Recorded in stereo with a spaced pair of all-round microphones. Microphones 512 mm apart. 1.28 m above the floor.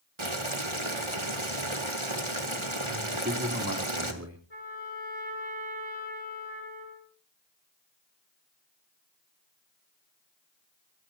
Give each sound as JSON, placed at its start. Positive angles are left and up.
{"t": 0.2, "sound": "boiling", "side_deg": -65, "distance_m": 2.0}
{"t": 3.1, "sound": "a man speaking", "side_deg": -30, "distance_m": 3.0}
{"t": 4.5, "sound": "a trumpet", "side_deg": 60, "distance_m": 8.5}